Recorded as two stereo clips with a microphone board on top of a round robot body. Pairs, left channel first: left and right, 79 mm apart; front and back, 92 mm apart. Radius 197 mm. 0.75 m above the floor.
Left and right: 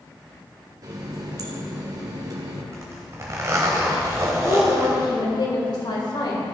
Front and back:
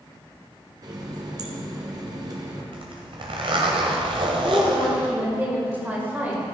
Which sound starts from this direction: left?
A woman speaking, at 4.3 s.